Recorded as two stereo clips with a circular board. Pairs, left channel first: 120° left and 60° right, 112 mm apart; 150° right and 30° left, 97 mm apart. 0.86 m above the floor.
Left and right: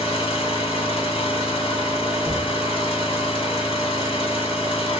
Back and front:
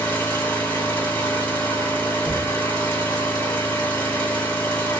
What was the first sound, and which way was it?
An engine running, 145° left.